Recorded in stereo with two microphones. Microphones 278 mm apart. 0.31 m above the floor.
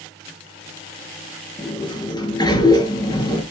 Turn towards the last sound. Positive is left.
turn(degrees=15)  # may be behind; listen again after turning